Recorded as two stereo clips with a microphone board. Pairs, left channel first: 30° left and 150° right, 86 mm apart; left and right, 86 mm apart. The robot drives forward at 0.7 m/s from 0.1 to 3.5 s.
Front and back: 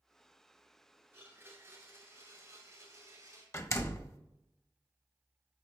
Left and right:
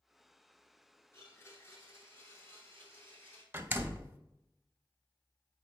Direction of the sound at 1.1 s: 145° left.